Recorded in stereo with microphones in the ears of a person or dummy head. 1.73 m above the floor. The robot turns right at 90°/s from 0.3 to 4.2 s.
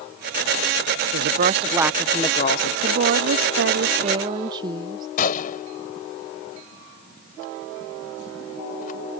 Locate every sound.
1.1 s a woman speaking: 75° right; by 2.7 s 70° left
2.8 s a woman speaking: 150° right; by 5.1 s 25° right
5.2 s a gunshot: 50° left (ahead or behind)